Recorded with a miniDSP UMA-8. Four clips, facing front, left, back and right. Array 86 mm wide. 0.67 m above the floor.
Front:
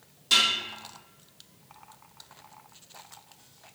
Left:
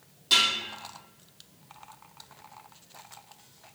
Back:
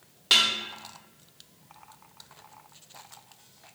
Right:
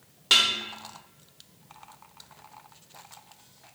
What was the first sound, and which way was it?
Dishes clattering, 135° right.